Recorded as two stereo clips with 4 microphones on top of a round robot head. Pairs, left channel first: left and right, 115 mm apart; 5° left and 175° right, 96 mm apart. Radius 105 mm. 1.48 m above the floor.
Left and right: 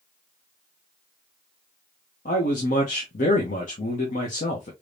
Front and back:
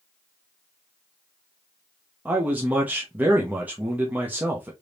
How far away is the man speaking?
About 0.8 m.